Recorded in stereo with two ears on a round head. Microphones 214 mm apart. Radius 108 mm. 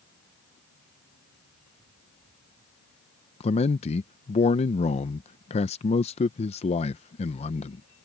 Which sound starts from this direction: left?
A man speaking, at 3.4 s.